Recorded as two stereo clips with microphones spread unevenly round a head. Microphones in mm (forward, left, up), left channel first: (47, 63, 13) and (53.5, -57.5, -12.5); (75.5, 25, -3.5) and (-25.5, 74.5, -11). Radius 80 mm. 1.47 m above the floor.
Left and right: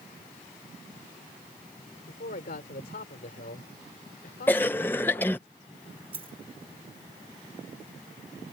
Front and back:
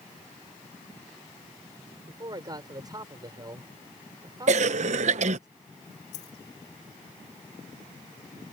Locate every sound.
2.1 s a man speaking: 100° left
4.5 s a cough: 165° left
6.1 s a dropped coin: 40° right